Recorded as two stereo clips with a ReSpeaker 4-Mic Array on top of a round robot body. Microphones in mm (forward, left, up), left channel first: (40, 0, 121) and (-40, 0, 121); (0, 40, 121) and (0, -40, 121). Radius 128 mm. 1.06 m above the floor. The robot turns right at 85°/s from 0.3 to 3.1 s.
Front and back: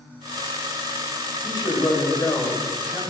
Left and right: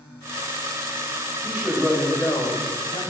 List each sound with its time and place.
1.4 s a man speaking: 30° right, 3.5 m; by 3.0 s 100° left, 3.5 m